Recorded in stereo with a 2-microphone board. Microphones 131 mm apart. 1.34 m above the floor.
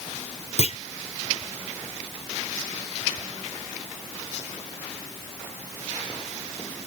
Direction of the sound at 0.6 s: 55° left (ahead or behind).